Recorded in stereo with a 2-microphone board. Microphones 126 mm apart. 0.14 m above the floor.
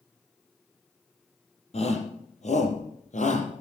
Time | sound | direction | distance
1.7 | a shout | 55° left (ahead or behind) | 4 m